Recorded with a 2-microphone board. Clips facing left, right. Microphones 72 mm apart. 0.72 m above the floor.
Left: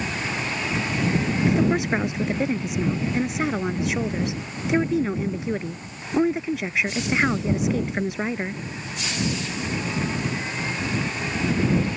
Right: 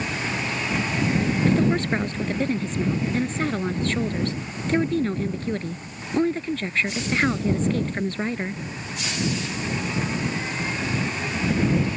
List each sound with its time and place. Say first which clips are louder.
1.5 s a woman speaking: left 1 dB; 10° left (ahead or behind)